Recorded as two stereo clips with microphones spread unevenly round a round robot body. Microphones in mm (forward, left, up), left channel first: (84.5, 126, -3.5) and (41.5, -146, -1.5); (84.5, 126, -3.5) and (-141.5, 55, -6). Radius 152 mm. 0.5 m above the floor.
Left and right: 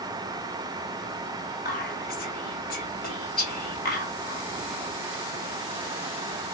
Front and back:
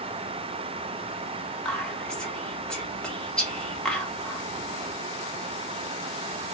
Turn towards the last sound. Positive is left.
turn(degrees=100)